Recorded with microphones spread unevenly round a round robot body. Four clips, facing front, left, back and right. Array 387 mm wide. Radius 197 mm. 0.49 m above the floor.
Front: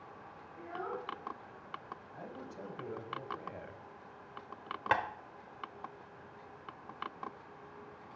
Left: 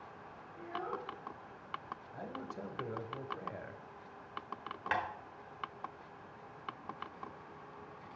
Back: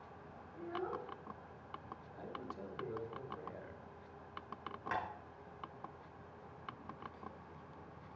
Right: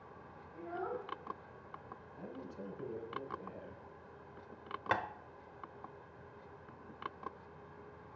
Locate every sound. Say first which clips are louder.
0.5 s a child speaking: even, front 1 dB; 105° right, 2.5 m
2.1 s a man speaking: left 3 dB, back 1 dB; 65° left, 1.4 m
4.9 s tapping: even, front 9 dB; 35° right, 1.1 m